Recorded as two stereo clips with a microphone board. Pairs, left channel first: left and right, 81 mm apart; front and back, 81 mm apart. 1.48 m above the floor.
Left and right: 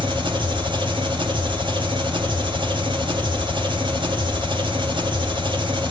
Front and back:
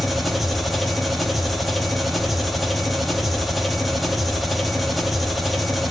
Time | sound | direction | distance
0.0 | an engine running | 90° right | 2.5 m